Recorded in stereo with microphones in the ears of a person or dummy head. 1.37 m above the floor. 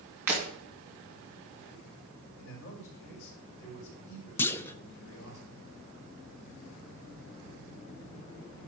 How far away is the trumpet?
No trumpet in this recording.